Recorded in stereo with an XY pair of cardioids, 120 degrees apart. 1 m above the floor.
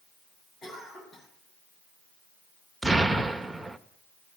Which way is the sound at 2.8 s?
5° right.